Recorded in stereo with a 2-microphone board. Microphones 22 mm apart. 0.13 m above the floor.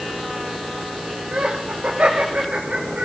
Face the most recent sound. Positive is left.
turn(degrees=-55)  # may be behind; listen again after turning